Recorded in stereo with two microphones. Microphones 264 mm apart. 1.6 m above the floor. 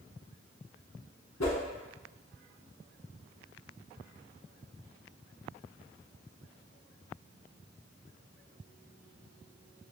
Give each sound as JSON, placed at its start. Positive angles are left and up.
{"t": 1.4, "sound": "a whoosh", "side_deg": 85, "distance_m": 0.7}